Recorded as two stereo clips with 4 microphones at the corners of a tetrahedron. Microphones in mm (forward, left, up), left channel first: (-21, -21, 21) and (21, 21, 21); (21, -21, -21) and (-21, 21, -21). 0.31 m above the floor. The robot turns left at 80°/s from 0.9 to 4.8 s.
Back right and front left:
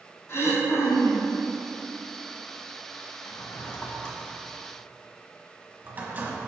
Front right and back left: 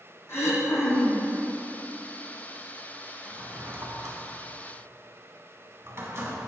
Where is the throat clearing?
90° right, 2 m; by 1.3 s 120° right, 2 m.